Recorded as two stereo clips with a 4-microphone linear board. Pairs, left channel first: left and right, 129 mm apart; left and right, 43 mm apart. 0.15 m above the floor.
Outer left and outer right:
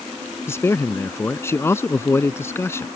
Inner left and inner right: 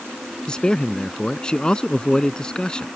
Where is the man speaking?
20° left (ahead or behind).